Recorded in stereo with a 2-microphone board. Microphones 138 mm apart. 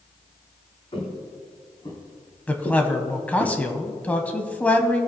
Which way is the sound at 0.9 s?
45° left (ahead or behind).